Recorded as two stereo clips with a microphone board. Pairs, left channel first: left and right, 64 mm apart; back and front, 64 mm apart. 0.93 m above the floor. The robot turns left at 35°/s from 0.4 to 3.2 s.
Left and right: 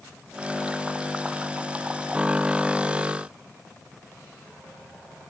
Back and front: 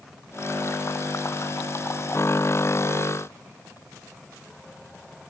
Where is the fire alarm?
No fire alarm in this recording.